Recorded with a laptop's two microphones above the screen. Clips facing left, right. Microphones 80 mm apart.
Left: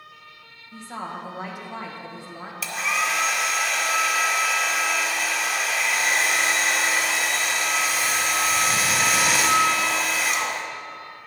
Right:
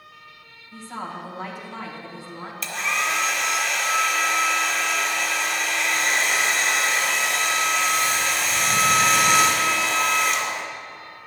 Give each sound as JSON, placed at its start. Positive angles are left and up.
{"t": 0.7, "sound": "a woman speaking", "side_deg": 15, "distance_m": 1.0}
{"t": 2.6, "sound": "a hair dryer", "side_deg": 5, "distance_m": 1.1}